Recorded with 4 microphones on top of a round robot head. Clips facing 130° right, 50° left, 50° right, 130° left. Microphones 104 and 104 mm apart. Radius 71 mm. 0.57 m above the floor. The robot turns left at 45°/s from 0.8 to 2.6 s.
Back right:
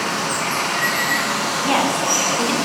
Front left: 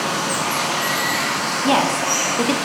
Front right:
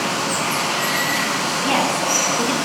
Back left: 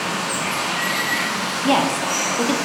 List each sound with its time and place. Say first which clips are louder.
0.0 s running water: front left 1 dB, front right 2 dB; 20° right, 0.8 m; by 2.7 s 100° right, 0.8 m
1.6 s a woman speaking: front left 2 dB, back left 2 dB; 100° left, 0.6 m; by 2.6 s 60° left, 0.6 m